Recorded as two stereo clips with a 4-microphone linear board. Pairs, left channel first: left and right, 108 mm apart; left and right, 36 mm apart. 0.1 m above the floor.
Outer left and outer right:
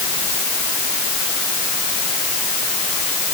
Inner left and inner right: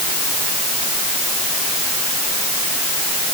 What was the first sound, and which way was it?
Only background noise.